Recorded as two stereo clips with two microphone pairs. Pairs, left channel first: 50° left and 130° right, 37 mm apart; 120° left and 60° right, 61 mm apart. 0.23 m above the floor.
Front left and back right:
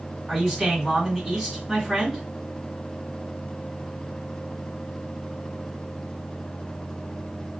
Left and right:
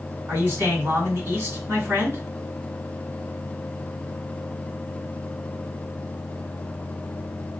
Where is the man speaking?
45° right, 2.0 m.